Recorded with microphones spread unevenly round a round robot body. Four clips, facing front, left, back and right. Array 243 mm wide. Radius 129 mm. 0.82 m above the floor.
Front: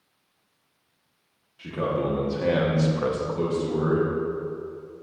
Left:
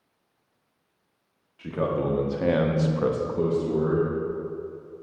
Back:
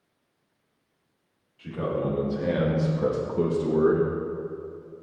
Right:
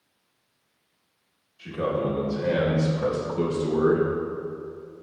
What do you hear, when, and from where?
1.6 s a man speaking: 65° left, 1.7 m; by 4.1 s 160° right, 1.0 m